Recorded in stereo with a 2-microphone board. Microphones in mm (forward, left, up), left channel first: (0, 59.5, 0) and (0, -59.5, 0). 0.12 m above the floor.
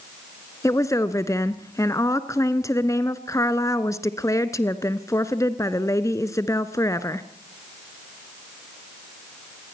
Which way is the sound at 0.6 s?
25° left (ahead or behind).